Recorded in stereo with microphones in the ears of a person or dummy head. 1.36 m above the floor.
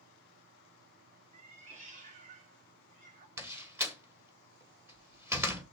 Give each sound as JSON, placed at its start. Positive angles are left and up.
{"t": 1.3, "sound": "a cat meowing", "side_deg": -40, "distance_m": 1.3}
{"t": 3.4, "sound": "a door slam", "side_deg": -10, "distance_m": 1.3}